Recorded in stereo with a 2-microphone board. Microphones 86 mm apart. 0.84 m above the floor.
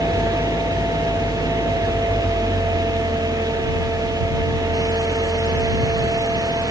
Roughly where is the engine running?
Left.